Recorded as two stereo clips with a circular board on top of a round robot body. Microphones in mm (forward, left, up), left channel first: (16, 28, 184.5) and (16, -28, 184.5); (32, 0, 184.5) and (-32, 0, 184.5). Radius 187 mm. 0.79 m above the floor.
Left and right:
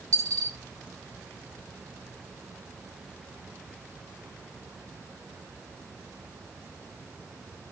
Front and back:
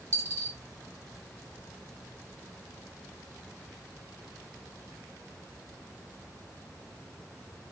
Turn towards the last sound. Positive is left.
turn(degrees=-130)